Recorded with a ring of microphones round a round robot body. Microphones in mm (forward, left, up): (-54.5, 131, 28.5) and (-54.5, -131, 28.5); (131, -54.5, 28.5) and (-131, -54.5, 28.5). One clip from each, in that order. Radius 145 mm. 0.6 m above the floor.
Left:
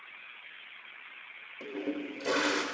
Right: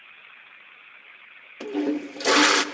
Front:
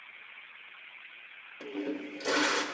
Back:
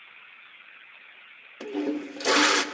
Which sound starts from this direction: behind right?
A toilet flushing, at 1.6 s.